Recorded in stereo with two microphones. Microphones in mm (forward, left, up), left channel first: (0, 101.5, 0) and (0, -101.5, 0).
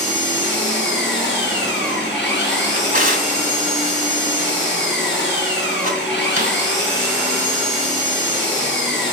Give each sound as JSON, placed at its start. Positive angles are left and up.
{"t": 0.0, "sound": "an engine running", "side_deg": 60, "distance_m": 7.5}
{"t": 2.7, "sound": "a drawer", "side_deg": -45, "distance_m": 1.8}